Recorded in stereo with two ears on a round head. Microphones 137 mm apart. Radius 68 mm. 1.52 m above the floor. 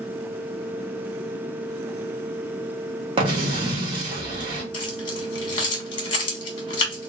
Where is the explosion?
35° right (ahead or behind), 1.2 m.